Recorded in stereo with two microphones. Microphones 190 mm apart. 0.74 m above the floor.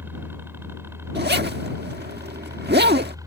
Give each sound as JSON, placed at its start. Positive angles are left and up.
{"t": 0.0, "sound": "a helicopter", "side_deg": -10}
{"t": 1.1, "sound": "a zipper", "side_deg": -60}